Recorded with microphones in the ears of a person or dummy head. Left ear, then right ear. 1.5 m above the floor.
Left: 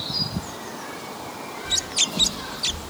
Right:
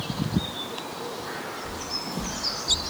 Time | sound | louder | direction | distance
1.6 | footsteps | left 9 dB | 10° left (ahead or behind) | 4 m